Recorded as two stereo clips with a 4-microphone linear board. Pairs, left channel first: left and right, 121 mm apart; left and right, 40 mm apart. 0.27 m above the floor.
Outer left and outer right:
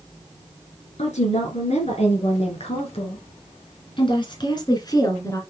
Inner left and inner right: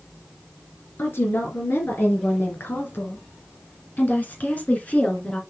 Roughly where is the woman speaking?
Left.